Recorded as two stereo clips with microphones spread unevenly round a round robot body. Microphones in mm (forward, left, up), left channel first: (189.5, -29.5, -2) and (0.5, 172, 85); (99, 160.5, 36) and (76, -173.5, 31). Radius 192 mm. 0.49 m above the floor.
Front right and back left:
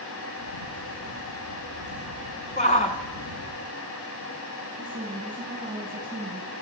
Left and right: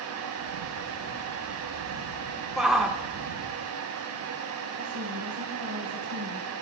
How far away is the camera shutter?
About 7 m.